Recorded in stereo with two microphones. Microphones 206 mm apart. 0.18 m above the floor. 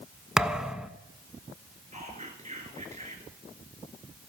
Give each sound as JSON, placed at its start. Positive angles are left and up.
{"t": 0.4, "sound": "a thud", "side_deg": 0, "distance_m": 0.8}
{"t": 1.9, "sound": "whispering", "side_deg": -35, "distance_m": 2.5}